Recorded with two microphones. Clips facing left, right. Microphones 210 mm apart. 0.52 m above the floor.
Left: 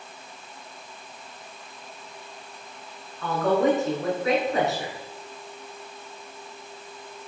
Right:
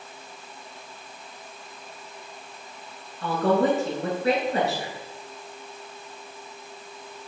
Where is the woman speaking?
35° right (ahead or behind), 6.5 m.